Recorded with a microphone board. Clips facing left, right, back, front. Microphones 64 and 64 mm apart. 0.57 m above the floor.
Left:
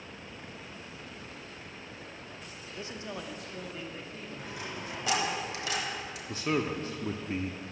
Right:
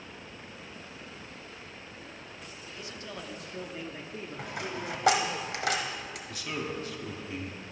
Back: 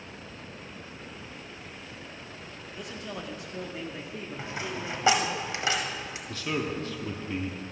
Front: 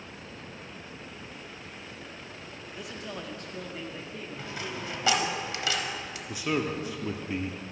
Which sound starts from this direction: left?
A man speaking, at 2.7 s.